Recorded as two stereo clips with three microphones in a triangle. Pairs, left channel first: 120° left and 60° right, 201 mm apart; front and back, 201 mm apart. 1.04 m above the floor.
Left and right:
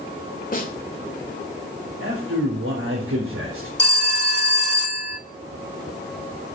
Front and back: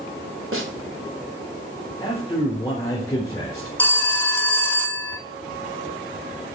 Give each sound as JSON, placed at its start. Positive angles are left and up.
{"t": 0.5, "sound": "a snare drum", "azimuth_deg": 170, "distance_m": 2.5}
{"t": 2.0, "sound": "a man speaking", "azimuth_deg": -75, "distance_m": 3.5}
{"t": 3.8, "sound": "a phone ringing", "azimuth_deg": 80, "distance_m": 1.4}